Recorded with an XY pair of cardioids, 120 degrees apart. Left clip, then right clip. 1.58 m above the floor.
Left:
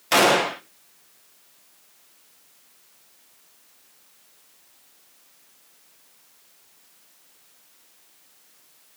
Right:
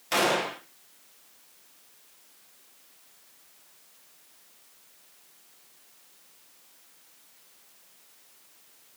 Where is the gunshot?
40° left, 1.5 m.